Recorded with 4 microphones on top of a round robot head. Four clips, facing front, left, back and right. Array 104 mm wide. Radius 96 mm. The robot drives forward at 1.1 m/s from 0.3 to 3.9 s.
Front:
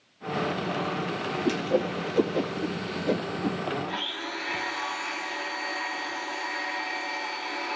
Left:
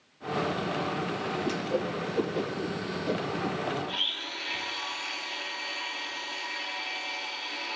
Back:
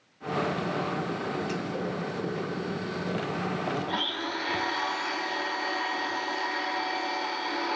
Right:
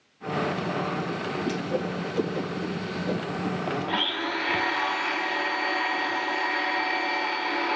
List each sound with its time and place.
1.4 s a whoosh: 5° left, 4.5 m; by 3.6 s 10° left, 2.5 m
3.9 s a blender: 105° right, 0.7 m; by 7.8 s 110° right, 0.7 m